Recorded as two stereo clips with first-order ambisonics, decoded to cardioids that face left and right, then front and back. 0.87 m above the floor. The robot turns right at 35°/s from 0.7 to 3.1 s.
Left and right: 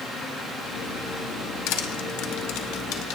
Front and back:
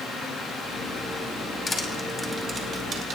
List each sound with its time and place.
1.7 s crushing: 75° left, 2 m; by 3.2 s 125° left, 2 m